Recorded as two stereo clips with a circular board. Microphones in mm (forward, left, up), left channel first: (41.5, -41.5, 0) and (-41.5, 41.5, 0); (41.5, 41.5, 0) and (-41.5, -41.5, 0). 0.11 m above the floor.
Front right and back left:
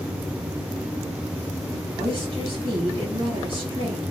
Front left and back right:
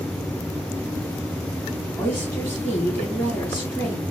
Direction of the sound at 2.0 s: 115° left.